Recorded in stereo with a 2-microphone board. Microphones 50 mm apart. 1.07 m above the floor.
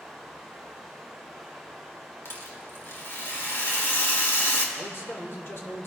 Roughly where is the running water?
Centre.